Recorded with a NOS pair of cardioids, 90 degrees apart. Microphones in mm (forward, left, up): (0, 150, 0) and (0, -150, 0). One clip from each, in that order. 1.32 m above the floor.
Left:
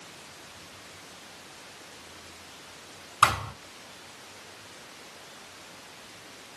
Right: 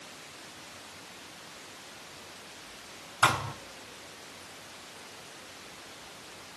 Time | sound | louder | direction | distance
3.2 | a thud | left 3 dB | 50° left | 5 m